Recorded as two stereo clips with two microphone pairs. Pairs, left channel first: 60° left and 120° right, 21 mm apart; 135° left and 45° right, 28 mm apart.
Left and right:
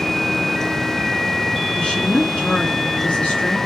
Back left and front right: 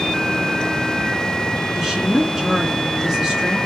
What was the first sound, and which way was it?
A woman speaking, 45° left.